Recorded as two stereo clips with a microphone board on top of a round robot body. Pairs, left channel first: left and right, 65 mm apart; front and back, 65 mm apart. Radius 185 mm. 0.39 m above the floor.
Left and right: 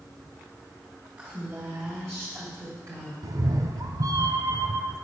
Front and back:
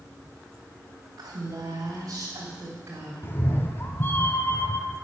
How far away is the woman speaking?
About 4 m.